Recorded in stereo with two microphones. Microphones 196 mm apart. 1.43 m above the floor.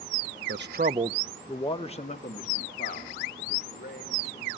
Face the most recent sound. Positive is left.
turn(degrees=50)  # may be behind; listen again after turning